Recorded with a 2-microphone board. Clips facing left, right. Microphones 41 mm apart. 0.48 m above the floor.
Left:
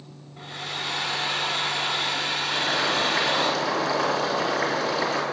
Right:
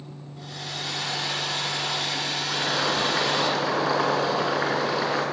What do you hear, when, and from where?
0.4 s a hair dryer: 30° left (ahead or behind), 1.5 m
2.5 s boiling: 10° right (ahead or behind), 2.5 m